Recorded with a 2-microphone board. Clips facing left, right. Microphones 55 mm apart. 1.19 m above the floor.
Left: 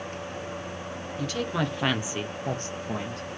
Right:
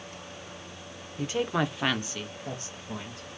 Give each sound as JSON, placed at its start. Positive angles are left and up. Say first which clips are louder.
{"t": 1.2, "sound": "a woman speaking", "louder": "right 1 dB", "side_deg": -25, "distance_m": 0.7}